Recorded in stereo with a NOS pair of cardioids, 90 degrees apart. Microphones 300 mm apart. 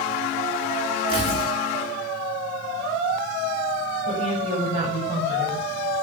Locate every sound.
1.1 s tearing paper: 15° left, 10 m
4.1 s a woman speaking: 15° right, 9 m